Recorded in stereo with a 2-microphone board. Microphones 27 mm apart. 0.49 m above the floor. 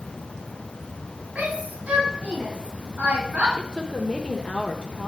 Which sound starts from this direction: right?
A shout, at 1.4 s.